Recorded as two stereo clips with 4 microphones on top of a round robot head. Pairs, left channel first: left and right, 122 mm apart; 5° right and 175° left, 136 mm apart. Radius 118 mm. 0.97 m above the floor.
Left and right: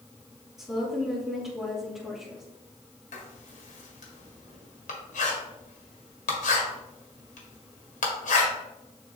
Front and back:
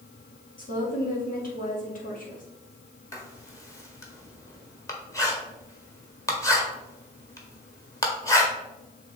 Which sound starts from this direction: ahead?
A woman speaking, at 0.6 s.